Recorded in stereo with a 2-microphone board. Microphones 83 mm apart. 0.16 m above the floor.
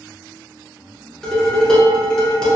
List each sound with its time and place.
1.2 s dishes clattering: 10° left (ahead or behind), 1.2 m